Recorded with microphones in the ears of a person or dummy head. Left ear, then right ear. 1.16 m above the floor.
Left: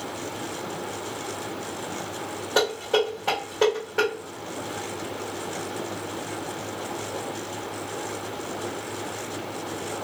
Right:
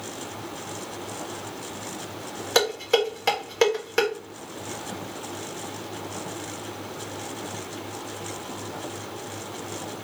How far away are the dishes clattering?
About 1.2 m.